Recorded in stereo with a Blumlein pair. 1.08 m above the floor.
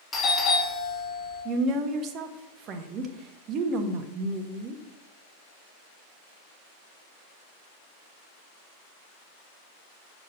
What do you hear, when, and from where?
0.1 s a doorbell: 20° left, 3 m
1.4 s a woman speaking: 30° right, 1.4 m